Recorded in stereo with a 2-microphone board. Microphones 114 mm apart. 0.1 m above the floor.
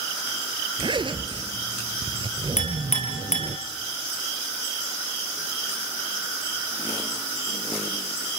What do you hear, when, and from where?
0.8 s a zipper: 45° right (ahead or behind), 1.1 m
2.6 s a clink: 75° left (ahead or behind), 4 m